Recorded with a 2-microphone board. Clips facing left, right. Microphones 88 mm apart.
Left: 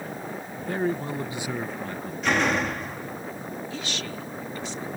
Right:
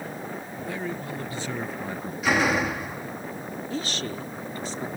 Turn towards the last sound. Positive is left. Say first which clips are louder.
# right 3 dB
turn(degrees=-40)  # may be behind; listen again after turning